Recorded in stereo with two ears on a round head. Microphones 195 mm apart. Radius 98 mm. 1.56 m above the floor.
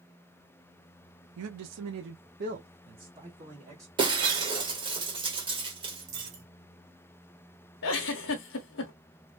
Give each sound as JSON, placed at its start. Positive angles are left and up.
{"t": 1.4, "sound": "a man speaking", "side_deg": -65, "distance_m": 0.6}
{"t": 4.0, "sound": "breaking glass", "side_deg": -25, "distance_m": 1.5}
{"t": 6.1, "sound": "a dropped coin", "side_deg": -35, "distance_m": 1.8}
{"t": 7.8, "sound": "a giggle", "side_deg": 65, "distance_m": 1.0}